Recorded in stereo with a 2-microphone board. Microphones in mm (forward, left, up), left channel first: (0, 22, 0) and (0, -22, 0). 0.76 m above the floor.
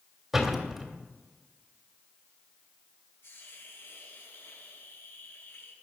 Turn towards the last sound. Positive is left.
turn(degrees=65)  # may be behind; listen again after turning